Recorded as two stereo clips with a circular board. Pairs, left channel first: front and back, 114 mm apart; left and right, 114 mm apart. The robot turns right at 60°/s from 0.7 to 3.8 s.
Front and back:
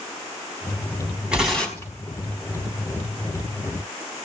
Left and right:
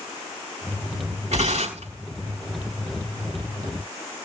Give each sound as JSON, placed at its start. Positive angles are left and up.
{"t": 1.3, "sound": "tearing paper", "azimuth_deg": -100, "distance_m": 5.0}